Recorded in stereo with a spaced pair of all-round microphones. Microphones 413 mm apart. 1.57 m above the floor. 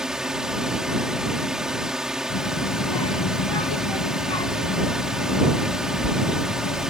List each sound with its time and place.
0.0 s a drone: centre (ahead or behind)
2.3 s a child speaking: 70° left (ahead or behind)